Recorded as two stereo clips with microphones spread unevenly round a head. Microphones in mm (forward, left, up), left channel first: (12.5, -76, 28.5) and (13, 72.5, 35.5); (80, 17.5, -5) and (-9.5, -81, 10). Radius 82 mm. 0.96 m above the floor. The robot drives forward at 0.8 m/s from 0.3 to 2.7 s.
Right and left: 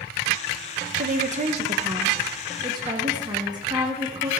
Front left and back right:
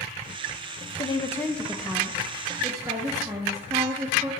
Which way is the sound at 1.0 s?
90° left.